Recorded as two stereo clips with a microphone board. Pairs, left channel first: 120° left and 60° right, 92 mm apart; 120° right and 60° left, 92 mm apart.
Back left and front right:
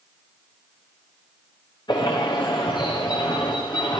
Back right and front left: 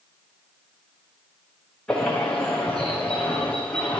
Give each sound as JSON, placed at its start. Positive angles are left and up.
{"t": 1.9, "sound": "a bird", "azimuth_deg": 160, "distance_m": 6.5}